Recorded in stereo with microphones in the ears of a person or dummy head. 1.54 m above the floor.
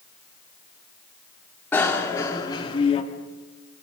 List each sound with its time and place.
1.7 s a bicycle bell: 15° left (ahead or behind), 3 m; by 3.0 s 35° left (ahead or behind), 2.5 m